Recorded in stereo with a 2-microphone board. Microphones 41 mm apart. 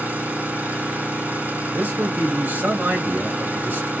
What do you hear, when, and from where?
0.0 s an engine running: 45° right (ahead or behind), 1.9 m
1.7 s a man speaking: 65° right (ahead or behind), 1.8 m